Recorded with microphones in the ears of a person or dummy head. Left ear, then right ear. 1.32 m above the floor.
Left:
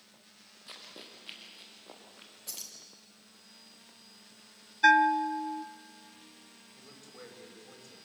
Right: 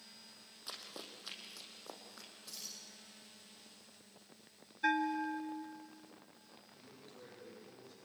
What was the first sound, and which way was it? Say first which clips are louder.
Running footsteps: even; 40° right (ahead or behind).